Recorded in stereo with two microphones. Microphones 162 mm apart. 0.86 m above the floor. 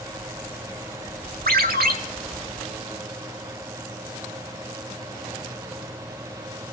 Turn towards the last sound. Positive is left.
turn(degrees=-75)  # may be behind; listen again after turning